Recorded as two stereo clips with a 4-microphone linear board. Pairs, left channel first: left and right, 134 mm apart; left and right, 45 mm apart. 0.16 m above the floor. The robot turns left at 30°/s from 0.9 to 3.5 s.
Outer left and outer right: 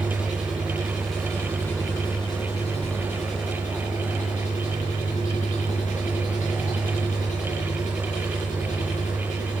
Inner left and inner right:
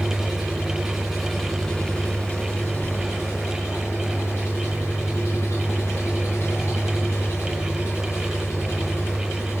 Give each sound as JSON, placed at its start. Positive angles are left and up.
{"t": 0.0, "sound": "an engine running", "azimuth_deg": -170, "distance_m": 7.5}